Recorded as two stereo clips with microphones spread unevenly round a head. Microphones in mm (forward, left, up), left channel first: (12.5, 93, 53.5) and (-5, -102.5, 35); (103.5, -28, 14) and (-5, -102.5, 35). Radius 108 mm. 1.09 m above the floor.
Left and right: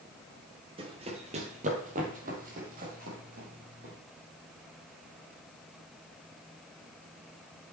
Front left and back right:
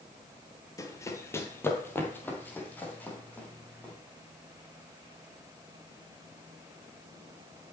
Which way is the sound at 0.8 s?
35° right.